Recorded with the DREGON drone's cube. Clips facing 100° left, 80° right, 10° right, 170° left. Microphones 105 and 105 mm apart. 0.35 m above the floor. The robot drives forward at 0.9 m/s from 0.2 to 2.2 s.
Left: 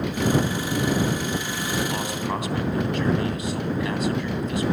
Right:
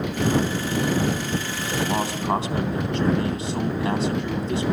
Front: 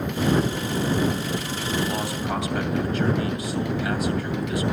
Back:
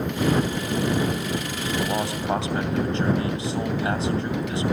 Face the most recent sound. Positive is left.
turn(degrees=-135)